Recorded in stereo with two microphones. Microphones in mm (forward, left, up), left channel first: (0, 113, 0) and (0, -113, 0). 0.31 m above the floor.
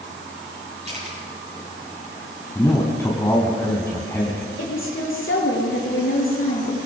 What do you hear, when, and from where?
0.8 s a camera shutter: 30° right (ahead or behind), 8 m
2.5 s a man speaking: 15° left (ahead or behind), 3 m
4.6 s a woman speaking: 65° left (ahead or behind), 6.5 m